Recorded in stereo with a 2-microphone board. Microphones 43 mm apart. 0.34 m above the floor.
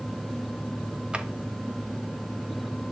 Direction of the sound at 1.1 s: 20° right (ahead or behind).